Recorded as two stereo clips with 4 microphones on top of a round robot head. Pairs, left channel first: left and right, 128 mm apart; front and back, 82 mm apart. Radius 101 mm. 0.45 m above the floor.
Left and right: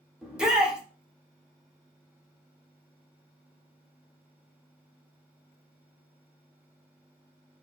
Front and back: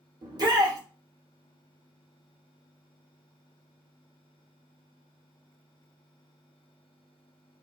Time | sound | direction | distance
0.2 | a shout | 175° right | 1.2 m